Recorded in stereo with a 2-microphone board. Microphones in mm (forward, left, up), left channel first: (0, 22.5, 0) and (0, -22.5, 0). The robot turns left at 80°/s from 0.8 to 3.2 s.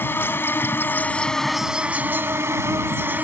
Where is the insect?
55° left; by 3.2 s 135° right.